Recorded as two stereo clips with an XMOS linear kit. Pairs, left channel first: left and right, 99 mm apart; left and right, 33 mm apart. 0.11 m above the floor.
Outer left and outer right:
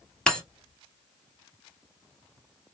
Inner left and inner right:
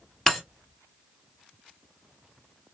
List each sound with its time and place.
0.3 s breaking glass: 5° left (ahead or behind), 1.5 m